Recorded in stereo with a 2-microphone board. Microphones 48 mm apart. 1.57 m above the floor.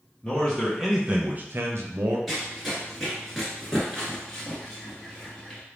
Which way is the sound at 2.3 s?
Centre (ahead or behind).